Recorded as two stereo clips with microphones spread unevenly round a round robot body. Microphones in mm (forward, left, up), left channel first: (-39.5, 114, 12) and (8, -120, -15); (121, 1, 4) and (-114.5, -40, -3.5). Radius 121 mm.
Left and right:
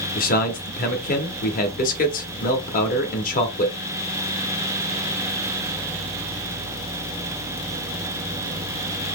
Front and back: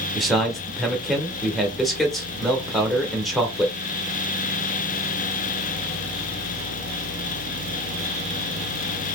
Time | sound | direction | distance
0.1 | a man speaking | 105° left | 0.8 m